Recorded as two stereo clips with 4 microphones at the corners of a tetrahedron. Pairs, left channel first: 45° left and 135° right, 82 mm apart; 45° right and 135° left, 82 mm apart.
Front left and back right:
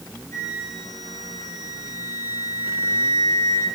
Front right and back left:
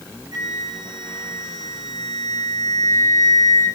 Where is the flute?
95° left, 7.5 m.